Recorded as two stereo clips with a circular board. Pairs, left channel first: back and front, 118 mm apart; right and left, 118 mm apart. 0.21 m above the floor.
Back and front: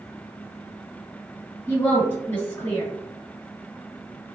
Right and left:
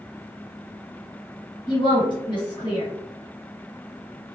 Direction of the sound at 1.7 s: 115° right.